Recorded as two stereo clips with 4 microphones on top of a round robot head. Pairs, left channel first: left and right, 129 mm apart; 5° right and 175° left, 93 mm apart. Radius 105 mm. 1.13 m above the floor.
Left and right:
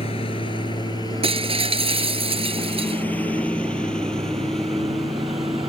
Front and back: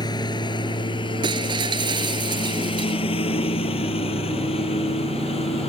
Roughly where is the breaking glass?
Behind right.